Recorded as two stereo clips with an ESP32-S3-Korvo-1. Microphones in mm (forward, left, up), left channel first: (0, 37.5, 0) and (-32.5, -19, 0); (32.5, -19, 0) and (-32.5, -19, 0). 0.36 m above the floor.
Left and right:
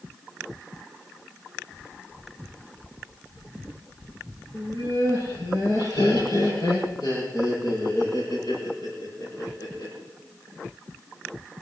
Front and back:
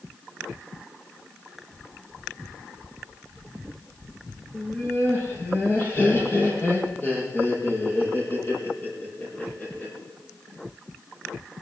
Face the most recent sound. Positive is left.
turn(degrees=60)